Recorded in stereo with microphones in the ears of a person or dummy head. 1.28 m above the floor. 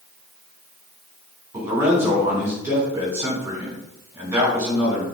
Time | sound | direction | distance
1.5 | a man speaking | 15° right (ahead or behind) | 2 m